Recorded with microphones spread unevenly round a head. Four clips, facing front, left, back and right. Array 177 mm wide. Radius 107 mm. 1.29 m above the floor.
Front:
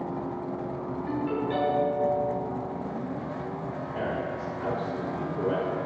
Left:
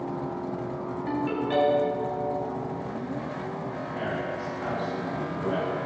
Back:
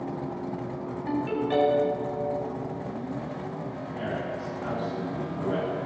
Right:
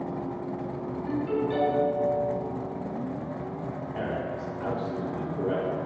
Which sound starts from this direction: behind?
A ringtone, at 1.1 s.